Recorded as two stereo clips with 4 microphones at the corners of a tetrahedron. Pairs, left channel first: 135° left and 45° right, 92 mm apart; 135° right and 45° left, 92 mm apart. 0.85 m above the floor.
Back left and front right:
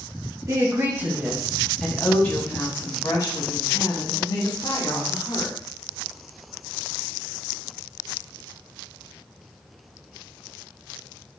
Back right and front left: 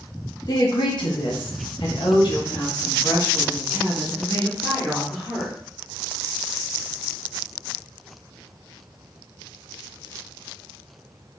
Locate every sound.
0.5 s a woman speaking: 95° right, 1.3 m; by 5.6 s 165° left, 3 m